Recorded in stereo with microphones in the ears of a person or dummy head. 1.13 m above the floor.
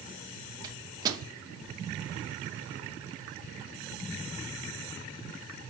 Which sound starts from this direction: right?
A microwave, at 0.6 s.